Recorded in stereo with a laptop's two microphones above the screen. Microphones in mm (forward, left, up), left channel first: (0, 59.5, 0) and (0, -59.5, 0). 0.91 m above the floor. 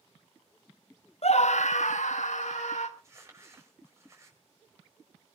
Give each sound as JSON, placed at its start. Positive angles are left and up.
{"t": 1.2, "sound": "a scream", "side_deg": 60, "distance_m": 0.6}
{"t": 3.0, "sound": "crumpling", "side_deg": -25, "distance_m": 4.5}